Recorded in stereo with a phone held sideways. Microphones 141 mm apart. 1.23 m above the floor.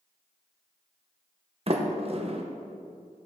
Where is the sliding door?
45° right (ahead or behind), 0.9 m.